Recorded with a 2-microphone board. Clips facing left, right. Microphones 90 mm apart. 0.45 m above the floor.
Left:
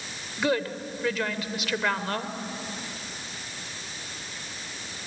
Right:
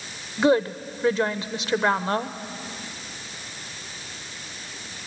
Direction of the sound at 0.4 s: 30° right (ahead or behind).